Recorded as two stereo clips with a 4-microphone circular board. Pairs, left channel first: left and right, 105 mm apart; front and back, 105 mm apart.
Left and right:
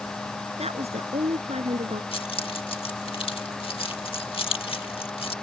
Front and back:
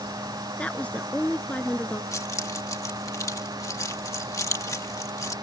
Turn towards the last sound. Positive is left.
turn(degrees=60)